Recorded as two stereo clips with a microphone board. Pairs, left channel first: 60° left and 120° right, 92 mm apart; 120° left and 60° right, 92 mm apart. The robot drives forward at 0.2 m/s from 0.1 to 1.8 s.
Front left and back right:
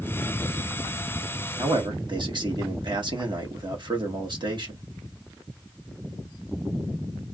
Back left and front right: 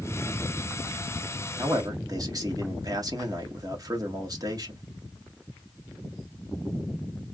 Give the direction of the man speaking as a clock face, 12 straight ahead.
3 o'clock.